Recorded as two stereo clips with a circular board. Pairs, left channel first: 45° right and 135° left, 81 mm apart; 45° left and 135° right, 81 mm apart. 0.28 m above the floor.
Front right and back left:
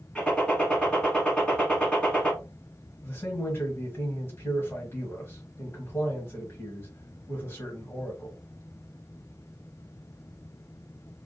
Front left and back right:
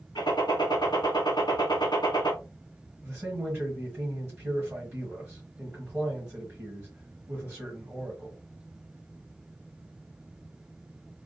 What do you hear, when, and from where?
0.1 s a gunshot: 30° left, 1.0 m
3.0 s a man speaking: 75° right, 1.0 m